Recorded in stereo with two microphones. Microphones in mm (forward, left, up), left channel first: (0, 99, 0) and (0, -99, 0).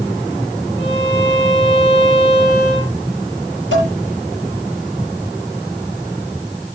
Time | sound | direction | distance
0.8 | a violin | 65° left (ahead or behind) | 7 m
3.7 | dishes clattering | 85° left | 8.5 m